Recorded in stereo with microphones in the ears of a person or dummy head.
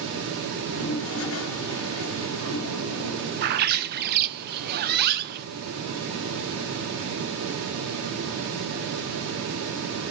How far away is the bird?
About 0.8 m.